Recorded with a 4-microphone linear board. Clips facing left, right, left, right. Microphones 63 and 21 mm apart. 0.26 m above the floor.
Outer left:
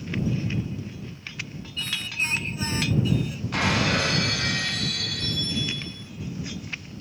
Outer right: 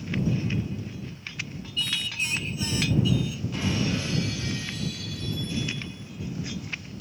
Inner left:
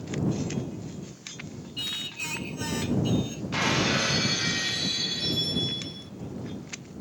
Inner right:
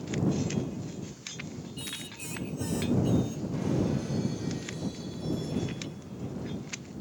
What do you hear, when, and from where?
1.8 s singing: 40° left (ahead or behind)
3.5 s breaking glass: 65° left (ahead or behind)